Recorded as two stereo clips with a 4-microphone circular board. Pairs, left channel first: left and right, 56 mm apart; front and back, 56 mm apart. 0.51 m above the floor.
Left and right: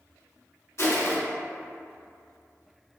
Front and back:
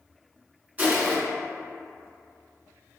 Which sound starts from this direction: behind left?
Crushing, at 0.8 s.